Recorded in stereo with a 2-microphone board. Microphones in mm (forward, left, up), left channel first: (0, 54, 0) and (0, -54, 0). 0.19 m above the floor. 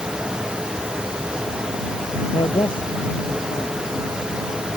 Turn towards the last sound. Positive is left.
turn(degrees=45)  # may be behind; listen again after turning